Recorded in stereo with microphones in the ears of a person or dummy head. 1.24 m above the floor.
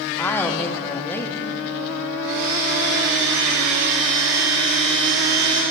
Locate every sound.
0.2 s a woman speaking: 10° left (ahead or behind), 0.8 m
2.2 s a blender: 70° right (ahead or behind), 5 m